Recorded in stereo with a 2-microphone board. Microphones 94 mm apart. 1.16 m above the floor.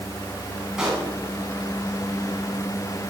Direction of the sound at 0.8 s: 10° right (ahead or behind).